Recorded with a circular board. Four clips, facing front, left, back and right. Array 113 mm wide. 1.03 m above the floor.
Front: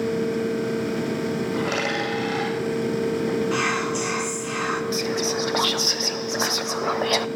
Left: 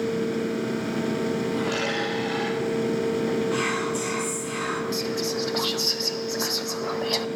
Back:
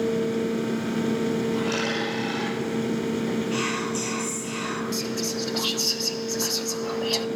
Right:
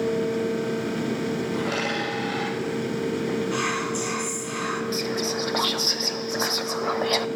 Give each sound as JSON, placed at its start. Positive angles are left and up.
{"t": 1.5, "sound": "a dropped coin", "azimuth_deg": -10, "distance_m": 8.0}
{"t": 3.5, "sound": "whispering", "azimuth_deg": 10, "distance_m": 1.9}
{"t": 4.9, "sound": "whispering", "azimuth_deg": -20, "distance_m": 0.5}